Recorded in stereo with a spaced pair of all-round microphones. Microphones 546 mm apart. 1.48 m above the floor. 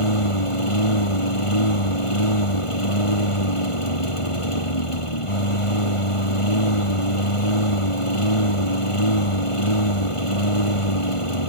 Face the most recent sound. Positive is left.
turn(degrees=65)  # may be behind; listen again after turning